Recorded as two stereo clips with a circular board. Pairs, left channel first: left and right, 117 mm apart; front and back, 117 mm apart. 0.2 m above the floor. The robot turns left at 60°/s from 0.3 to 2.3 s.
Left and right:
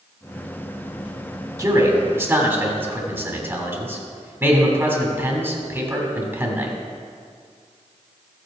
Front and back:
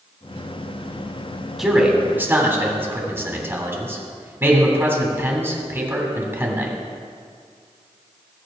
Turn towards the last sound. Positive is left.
turn(degrees=-135)